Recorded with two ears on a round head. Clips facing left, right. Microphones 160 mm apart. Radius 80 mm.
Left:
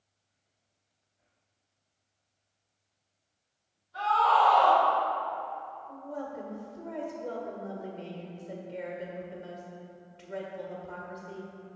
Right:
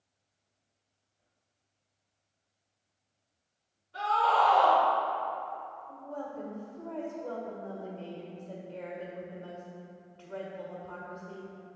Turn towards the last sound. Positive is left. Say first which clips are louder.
# left 2 dB
turn(degrees=20)  # may be behind; listen again after turning